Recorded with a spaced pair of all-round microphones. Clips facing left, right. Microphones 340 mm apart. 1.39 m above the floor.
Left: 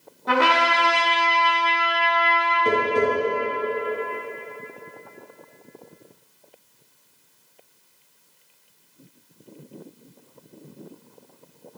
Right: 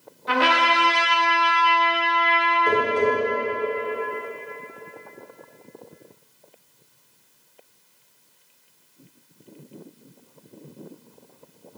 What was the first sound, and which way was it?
A trumpet, 60° left (ahead or behind).